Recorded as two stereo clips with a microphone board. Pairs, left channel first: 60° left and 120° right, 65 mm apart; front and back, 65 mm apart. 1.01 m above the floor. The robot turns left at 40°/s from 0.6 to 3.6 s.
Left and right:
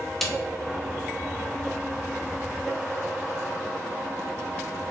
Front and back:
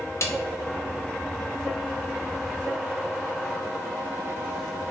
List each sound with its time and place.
0.2 s a snare drum: 25° right, 0.5 m